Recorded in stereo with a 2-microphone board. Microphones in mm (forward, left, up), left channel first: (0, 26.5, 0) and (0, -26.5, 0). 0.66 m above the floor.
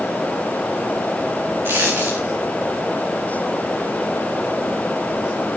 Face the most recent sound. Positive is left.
turn(degrees=-50)  # may be behind; listen again after turning